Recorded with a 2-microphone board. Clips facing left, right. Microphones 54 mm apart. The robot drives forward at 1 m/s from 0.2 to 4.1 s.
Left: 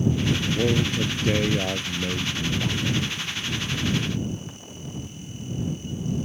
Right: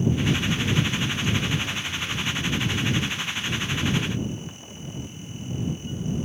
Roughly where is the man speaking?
Left.